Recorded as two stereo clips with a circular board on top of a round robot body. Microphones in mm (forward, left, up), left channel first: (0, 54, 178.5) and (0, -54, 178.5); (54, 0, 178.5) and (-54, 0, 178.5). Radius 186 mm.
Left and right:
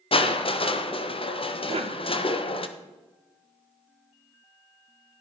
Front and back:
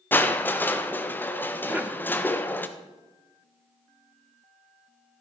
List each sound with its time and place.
0.1 s crushing: 70° left, 1.5 m
1.7 s a cough: 105° right, 1.6 m